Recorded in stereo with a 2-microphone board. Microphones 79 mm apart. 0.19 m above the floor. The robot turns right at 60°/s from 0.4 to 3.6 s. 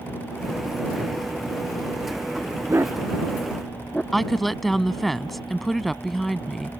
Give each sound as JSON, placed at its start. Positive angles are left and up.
{"t": 2.7, "sound": "a dog barking", "side_deg": -40}
{"t": 4.1, "sound": "a woman speaking", "side_deg": 0}